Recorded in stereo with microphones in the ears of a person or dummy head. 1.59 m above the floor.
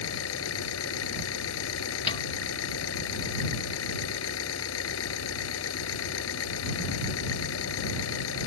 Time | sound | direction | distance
0.0 | an engine running | 80° left | ?
2.1 | a snare drum | 30° left (ahead or behind) | ?